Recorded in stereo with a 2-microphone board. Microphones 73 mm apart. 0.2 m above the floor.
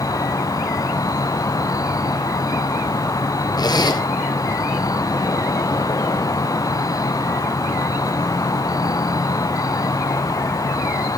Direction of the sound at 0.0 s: 60° left (ahead or behind).